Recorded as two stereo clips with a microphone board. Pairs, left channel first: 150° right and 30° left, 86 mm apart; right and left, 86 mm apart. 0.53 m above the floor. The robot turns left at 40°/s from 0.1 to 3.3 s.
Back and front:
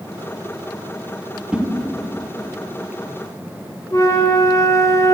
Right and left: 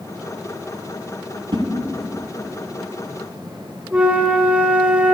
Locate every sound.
1.5 s a whoosh: 105° left, 1.3 m; by 1.6 s 100° left, 1.3 m
3.9 s a flute: 160° left, 1.8 m